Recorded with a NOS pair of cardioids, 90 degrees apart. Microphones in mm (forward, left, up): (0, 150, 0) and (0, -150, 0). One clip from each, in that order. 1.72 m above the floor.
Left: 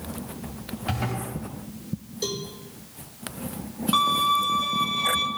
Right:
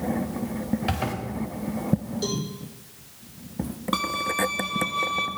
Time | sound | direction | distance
0.9 | a zipper | 25° right | 4.5 m
2.2 | a cowbell | 15° left | 4.5 m
3.9 | a violin | 20° right | 2.5 m